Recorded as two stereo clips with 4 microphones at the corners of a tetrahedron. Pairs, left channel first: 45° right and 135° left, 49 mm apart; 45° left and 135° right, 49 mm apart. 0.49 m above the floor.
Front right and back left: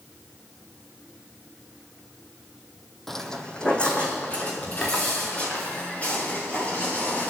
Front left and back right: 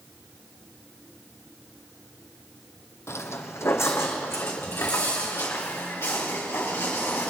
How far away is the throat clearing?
I don't hear throat clearing.